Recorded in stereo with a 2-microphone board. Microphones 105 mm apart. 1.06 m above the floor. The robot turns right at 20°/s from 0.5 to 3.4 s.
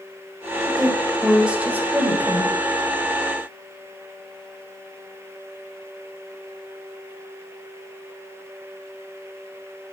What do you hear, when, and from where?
0.7 s a woman speaking: 175° left, 4.5 m; by 2.5 s 150° right, 4.5 m